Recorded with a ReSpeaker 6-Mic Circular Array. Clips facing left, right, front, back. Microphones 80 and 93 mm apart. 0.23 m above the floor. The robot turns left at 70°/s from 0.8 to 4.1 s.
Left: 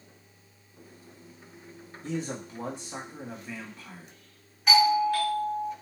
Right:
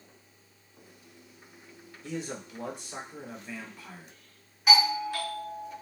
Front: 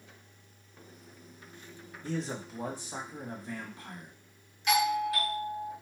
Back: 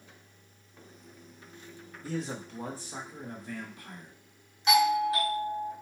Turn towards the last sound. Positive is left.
turn(degrees=-170)